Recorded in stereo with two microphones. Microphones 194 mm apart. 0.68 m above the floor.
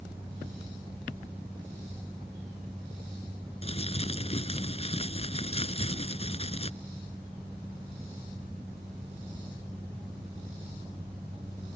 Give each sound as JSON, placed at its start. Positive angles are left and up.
{"t": 3.6, "sound": "crumpling", "side_deg": 30}